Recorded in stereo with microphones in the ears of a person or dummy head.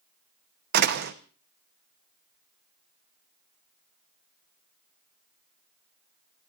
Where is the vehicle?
No vehicle in this recording.